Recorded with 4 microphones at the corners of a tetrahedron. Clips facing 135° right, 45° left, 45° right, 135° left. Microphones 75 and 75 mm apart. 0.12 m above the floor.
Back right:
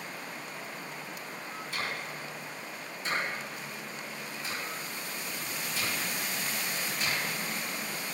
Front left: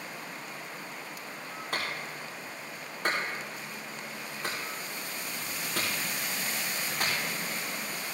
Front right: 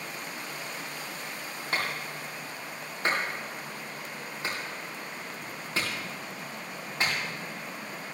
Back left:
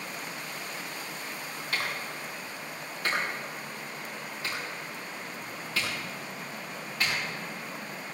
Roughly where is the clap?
Ahead.